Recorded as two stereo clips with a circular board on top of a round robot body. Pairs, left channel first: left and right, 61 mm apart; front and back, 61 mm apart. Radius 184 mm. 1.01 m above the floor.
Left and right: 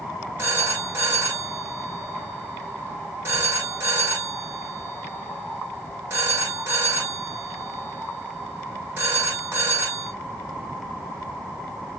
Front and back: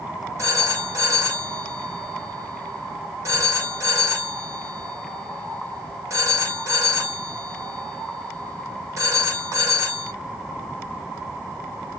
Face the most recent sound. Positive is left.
turn(degrees=-140)